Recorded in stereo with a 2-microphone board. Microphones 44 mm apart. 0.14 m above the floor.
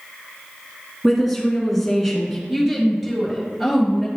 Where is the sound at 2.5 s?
5° right (ahead or behind), 2 m.